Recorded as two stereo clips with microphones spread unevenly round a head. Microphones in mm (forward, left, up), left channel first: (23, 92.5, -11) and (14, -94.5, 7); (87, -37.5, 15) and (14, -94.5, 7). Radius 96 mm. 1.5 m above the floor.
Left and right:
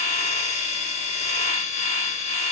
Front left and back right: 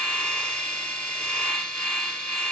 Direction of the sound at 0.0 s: 110° left.